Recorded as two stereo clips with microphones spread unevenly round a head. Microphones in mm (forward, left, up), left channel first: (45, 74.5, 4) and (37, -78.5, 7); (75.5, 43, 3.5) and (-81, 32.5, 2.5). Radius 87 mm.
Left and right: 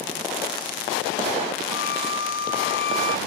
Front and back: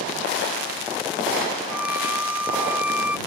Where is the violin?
100° left.